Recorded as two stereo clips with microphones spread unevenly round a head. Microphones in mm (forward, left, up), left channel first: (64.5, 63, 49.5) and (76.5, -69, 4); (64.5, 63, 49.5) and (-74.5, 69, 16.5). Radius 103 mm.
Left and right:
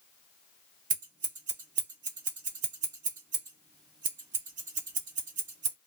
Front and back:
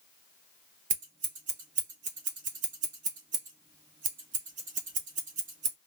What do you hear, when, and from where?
0.9 s scissors: 135° right, 0.6 m